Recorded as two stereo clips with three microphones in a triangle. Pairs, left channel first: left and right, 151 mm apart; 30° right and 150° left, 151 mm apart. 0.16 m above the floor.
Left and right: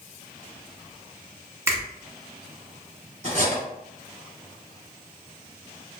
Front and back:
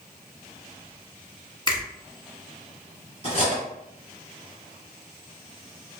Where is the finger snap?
35° right, 1.0 m.